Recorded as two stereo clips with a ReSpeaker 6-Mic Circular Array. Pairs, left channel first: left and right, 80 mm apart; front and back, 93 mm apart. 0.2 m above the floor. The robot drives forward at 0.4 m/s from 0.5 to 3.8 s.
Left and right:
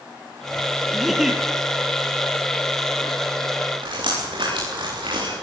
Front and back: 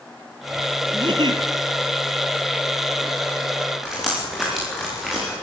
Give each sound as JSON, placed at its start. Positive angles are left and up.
{"t": 0.9, "sound": "a giggle", "azimuth_deg": -175, "distance_m": 2.0}
{"t": 3.8, "sound": "dripping", "azimuth_deg": -90, "distance_m": 10.0}